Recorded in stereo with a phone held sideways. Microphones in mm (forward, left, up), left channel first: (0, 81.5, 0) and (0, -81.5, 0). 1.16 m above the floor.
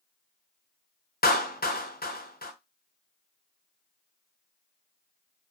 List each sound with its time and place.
1.2 s a clap: 70° left (ahead or behind), 0.7 m